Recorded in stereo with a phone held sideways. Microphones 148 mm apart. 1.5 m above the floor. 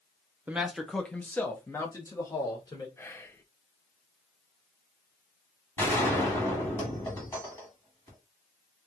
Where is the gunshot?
20° left (ahead or behind), 1.9 m.